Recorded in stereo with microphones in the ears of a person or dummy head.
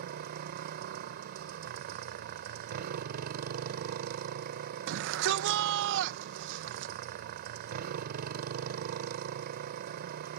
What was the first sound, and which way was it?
A motorcycle, 55° right (ahead or behind).